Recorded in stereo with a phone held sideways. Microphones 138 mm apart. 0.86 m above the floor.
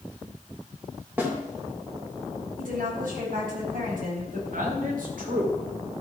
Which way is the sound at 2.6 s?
85° right.